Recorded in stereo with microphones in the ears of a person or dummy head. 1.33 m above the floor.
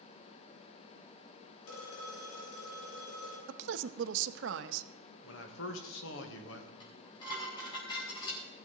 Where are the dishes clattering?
30° left (ahead or behind), 4 m.